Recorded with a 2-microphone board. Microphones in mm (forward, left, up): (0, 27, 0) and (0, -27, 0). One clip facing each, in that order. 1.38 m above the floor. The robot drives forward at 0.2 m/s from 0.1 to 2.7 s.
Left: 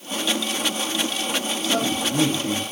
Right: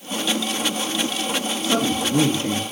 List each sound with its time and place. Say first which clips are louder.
1.6 s a man speaking: right 3 dB; 65° right (ahead or behind), 1.0 m; by 2.6 s 55° right (ahead or behind), 1.1 m